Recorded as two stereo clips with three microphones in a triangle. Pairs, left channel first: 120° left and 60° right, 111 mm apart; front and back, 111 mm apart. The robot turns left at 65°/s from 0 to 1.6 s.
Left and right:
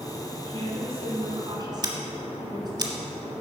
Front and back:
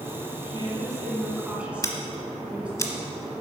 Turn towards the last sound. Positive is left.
turn(degrees=-45)